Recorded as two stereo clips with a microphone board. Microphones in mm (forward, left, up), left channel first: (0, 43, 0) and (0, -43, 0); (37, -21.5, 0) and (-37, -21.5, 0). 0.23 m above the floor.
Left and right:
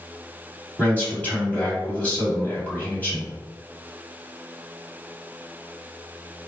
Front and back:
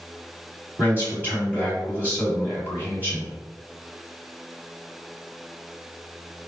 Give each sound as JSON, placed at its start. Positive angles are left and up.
{"t": 0.8, "sound": "a man speaking", "azimuth_deg": 140, "distance_m": 1.7}